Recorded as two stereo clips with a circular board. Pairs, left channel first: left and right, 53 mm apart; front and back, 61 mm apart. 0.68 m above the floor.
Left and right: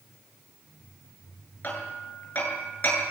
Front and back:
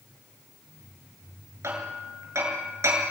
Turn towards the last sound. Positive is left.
turn(degrees=145)